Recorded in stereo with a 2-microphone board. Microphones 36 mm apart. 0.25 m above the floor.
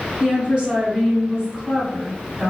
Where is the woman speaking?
25° right (ahead or behind), 1.4 m.